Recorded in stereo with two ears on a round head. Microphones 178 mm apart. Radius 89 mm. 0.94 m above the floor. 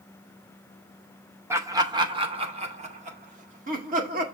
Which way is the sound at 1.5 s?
15° right (ahead or behind).